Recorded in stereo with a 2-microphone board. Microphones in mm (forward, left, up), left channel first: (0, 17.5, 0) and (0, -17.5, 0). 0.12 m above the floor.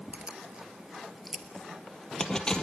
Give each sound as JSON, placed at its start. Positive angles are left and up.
{"t": 0.1, "sound": "keys jangling", "side_deg": -35, "distance_m": 1.6}